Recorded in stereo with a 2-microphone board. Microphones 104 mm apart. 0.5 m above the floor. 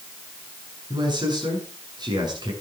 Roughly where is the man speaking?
Right.